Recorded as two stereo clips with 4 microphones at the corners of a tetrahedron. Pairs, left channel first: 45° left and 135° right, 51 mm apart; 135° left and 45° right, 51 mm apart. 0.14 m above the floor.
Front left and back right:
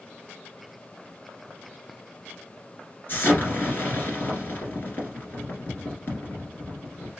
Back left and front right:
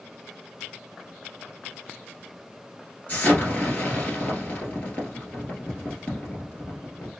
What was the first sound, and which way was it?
An explosion, 80° left.